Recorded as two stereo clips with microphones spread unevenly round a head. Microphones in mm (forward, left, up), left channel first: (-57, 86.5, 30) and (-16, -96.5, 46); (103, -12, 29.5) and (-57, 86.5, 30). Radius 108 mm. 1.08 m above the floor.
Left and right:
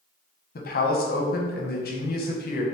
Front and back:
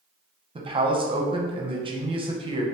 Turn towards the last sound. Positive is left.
turn(degrees=90)